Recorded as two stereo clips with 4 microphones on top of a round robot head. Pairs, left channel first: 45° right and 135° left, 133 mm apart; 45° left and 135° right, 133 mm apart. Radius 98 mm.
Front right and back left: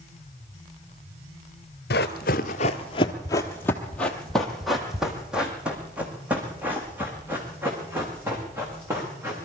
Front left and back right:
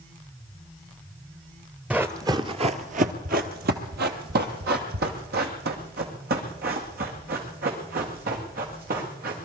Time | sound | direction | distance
1.9 | running footsteps | 55° right | 0.8 m